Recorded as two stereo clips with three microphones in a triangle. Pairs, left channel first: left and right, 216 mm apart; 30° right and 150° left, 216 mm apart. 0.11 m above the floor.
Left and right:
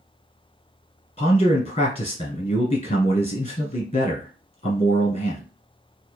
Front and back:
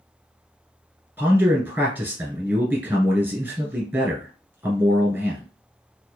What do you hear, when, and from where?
1.2 s a man speaking: 80° left, 1.4 m